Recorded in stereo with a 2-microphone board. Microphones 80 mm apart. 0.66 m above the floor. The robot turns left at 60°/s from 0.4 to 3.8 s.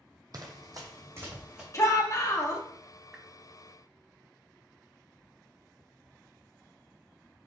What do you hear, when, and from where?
0.3 s running footsteps: 50° right (ahead or behind), 0.9 m; by 1.6 s 5° right (ahead or behind), 2 m
1.7 s a shout: 105° left, 1.1 m; by 2.6 s 55° left, 1.1 m
3.1 s a whoosh: 10° right (ahead or behind), 0.8 m; by 3.3 s 5° right (ahead or behind), 0.8 m